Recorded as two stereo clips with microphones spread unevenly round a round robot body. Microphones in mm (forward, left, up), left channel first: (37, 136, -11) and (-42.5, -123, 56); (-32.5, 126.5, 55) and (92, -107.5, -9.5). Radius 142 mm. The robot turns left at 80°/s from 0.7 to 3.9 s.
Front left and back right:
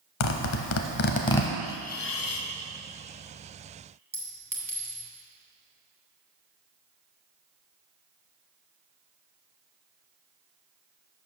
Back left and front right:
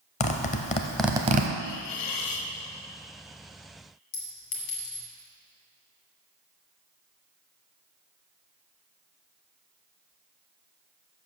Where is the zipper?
50° left, 0.7 m; by 1.5 s 15° right, 0.7 m.